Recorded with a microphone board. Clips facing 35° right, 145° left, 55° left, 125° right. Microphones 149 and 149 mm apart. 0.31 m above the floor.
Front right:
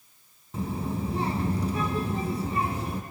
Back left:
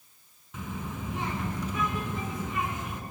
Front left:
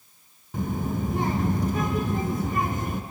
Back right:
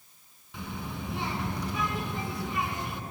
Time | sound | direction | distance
0.5 | a child speaking | 15° left | 1.4 m